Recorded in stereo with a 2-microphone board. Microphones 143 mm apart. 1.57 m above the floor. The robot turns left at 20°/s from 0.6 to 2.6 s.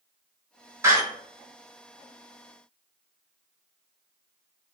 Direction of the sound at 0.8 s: 20° right (ahead or behind).